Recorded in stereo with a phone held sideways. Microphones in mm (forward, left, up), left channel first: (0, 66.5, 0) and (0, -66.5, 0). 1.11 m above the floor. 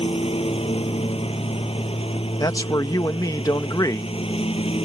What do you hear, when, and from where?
0.0 s a lawn mower: 45° left (ahead or behind)
2.4 s a man speaking: 30° left (ahead or behind)